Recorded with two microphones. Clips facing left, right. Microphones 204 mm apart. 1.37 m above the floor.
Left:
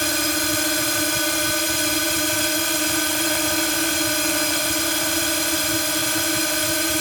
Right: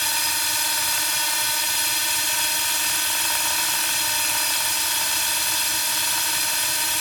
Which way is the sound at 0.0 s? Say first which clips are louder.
Left 12 dB; 65° left (ahead or behind).